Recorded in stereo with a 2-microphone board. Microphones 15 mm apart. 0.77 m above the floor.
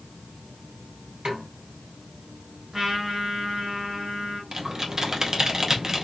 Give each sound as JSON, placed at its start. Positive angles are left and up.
{"t": 1.2, "sound": "a snare drum", "side_deg": -70, "distance_m": 1.9}
{"t": 2.7, "sound": "a trumpet", "side_deg": -20, "distance_m": 2.5}
{"t": 4.5, "sound": "typing on a keyboard", "side_deg": -35, "distance_m": 0.7}